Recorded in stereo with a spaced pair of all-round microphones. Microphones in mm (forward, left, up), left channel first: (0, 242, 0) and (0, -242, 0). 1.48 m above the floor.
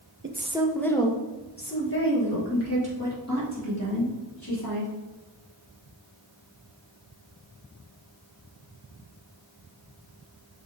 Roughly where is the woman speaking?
Right.